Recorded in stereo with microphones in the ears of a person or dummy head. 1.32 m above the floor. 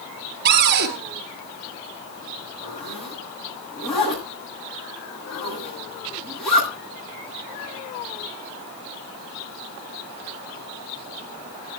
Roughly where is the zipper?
Centre.